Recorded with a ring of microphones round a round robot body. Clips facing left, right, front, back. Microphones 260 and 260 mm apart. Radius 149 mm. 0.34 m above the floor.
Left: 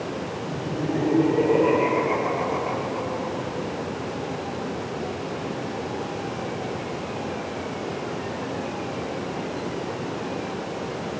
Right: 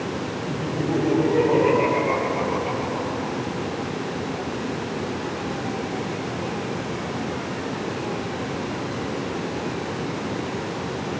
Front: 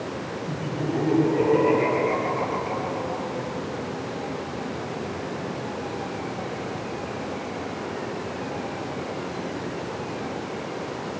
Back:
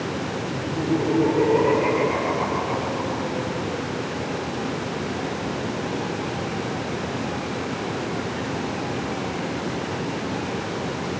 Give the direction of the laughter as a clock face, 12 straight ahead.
1 o'clock.